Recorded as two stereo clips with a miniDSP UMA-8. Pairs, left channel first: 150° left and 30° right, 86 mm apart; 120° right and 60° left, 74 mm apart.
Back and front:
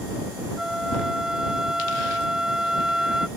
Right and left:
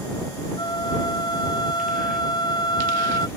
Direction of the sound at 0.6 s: 115° right.